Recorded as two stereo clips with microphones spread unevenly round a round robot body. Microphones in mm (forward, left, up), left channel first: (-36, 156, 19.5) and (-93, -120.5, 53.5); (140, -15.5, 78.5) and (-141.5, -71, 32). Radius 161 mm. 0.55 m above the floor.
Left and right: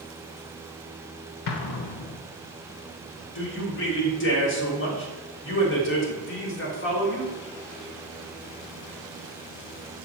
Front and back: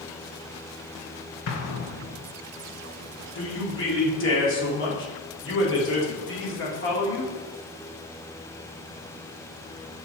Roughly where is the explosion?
Ahead left.